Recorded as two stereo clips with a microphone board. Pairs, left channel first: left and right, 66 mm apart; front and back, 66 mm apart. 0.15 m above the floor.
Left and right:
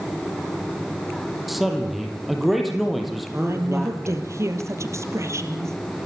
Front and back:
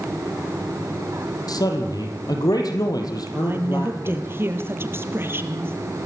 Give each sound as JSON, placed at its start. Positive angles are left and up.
{"t": 1.5, "sound": "a man speaking", "azimuth_deg": 0, "distance_m": 5.5}
{"t": 3.3, "sound": "a woman speaking", "azimuth_deg": -130, "distance_m": 3.5}